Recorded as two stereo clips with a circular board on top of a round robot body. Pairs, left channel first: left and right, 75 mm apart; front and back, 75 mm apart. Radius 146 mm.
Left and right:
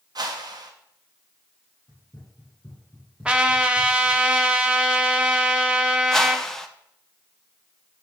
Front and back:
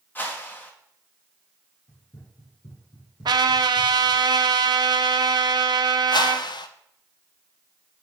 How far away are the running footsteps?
About 1.9 m.